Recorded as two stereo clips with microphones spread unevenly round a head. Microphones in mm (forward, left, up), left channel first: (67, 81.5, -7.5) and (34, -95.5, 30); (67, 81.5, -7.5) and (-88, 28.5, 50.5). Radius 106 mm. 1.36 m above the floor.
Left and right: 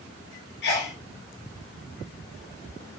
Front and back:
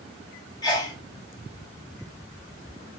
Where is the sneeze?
80° left, 1.0 m.